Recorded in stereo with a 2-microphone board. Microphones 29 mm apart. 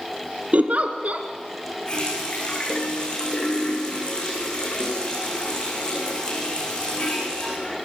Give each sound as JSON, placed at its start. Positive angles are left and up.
{"t": 0.5, "sound": "a giggle", "side_deg": -55, "distance_m": 2.5}
{"t": 1.9, "sound": "a running tap", "side_deg": 35, "distance_m": 9.0}